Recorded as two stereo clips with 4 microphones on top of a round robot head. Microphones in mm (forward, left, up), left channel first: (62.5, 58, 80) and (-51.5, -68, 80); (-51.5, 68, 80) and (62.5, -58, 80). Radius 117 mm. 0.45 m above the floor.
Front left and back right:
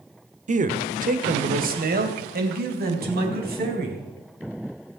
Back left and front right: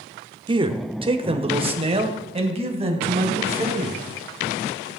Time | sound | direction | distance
0.5 | a man speaking | 100° right | 1.5 m